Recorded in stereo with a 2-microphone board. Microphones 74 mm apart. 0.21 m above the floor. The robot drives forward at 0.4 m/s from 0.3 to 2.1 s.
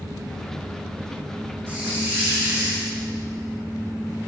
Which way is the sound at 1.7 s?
20° right (ahead or behind).